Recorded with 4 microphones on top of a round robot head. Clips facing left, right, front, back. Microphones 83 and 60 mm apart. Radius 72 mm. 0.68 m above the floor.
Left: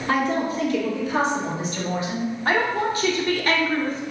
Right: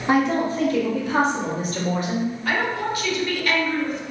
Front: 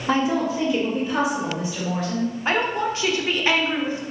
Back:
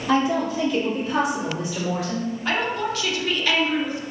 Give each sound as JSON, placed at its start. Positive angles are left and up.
{"t": 0.1, "sound": "a woman speaking", "azimuth_deg": -40, "distance_m": 1.1}
{"t": 2.5, "sound": "a woman speaking", "azimuth_deg": 50, "distance_m": 0.7}